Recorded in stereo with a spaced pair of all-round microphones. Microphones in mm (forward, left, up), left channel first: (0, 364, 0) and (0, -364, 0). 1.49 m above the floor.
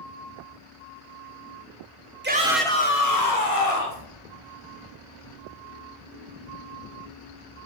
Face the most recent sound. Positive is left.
turn(degrees=60)  # may be behind; listen again after turning